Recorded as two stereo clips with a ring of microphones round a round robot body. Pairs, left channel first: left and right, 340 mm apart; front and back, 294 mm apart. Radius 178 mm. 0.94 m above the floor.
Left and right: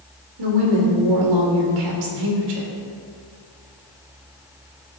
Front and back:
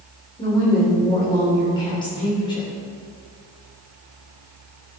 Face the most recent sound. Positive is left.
turn(degrees=-75)